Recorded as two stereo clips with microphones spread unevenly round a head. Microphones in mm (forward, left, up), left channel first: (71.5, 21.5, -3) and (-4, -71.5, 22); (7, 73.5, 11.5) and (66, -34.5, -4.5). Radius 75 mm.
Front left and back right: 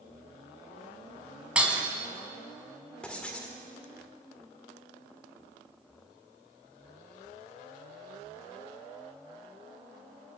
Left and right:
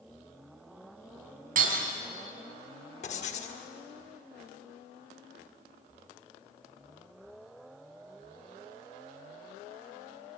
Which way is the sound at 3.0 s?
140° left.